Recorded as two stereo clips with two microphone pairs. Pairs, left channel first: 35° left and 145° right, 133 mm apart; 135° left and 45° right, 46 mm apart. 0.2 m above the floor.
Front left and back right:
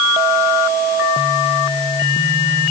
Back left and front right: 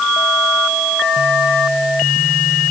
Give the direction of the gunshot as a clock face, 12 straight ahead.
No gunshot in this recording.